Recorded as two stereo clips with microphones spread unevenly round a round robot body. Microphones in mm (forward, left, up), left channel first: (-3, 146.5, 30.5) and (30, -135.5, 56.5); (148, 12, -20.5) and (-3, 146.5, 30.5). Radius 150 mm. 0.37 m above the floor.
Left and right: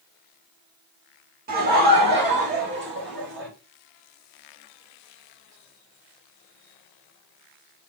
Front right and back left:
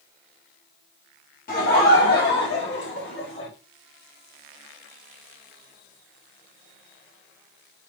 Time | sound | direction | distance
1.5 | laughter | 25° right | 1.7 m